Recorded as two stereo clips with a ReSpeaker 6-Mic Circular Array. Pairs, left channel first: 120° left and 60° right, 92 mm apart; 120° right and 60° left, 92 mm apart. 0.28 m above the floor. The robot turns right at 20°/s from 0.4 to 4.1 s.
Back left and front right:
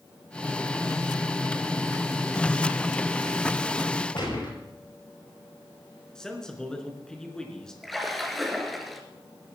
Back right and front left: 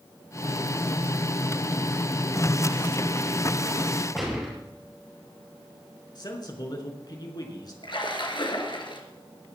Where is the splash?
150° right, 2.5 m.